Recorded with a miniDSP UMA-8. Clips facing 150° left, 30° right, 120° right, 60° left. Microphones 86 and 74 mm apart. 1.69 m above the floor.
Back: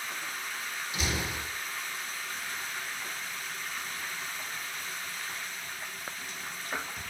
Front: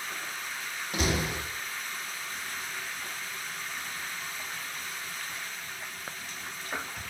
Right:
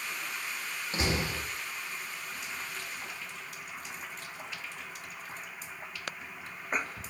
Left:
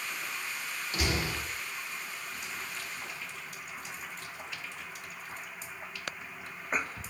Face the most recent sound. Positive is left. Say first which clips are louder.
# front 5 dB, right 1 dB
turn(degrees=-60)